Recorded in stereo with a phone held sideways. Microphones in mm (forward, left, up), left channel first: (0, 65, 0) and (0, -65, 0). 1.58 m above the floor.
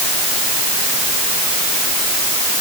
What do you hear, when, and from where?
Only background noise.